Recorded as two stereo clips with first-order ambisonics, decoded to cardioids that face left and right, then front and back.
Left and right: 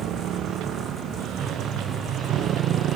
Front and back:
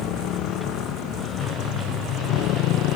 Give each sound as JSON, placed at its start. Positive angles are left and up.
{"t": 0.0, "sound": "a motorcycle", "azimuth_deg": -40}